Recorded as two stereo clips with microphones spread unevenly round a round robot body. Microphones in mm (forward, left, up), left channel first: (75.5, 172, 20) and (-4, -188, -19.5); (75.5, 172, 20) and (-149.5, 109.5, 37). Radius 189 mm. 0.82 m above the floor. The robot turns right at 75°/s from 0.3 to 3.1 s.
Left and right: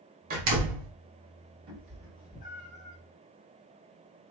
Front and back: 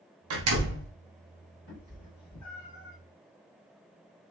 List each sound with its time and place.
0.3 s a door slam: 165° right, 1.1 m; by 0.9 s 120° right, 1.1 m
1.7 s a cat meowing: 45° right, 1.7 m; by 3.0 s 50° left, 1.7 m